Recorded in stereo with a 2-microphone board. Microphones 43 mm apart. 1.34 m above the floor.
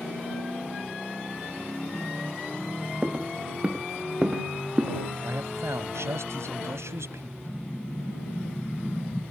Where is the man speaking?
85° right.